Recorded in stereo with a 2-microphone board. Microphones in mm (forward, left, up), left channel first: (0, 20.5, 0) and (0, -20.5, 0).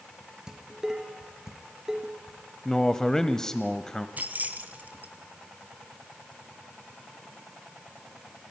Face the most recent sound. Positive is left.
turn(degrees=-40)  # may be behind; listen again after turning